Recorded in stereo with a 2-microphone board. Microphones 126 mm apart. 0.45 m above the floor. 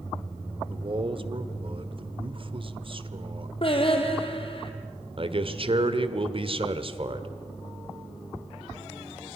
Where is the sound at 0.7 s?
45° right (ahead or behind), 1.3 m.